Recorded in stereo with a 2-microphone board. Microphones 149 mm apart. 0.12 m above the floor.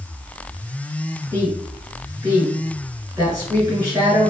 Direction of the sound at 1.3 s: 25° right (ahead or behind).